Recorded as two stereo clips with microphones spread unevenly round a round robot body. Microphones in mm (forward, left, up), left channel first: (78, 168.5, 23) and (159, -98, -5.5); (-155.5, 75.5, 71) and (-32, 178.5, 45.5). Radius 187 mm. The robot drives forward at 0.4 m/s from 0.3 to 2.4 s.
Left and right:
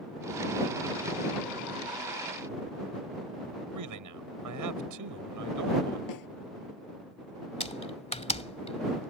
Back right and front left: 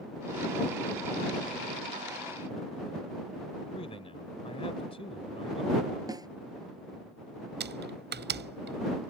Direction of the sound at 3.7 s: 70° right.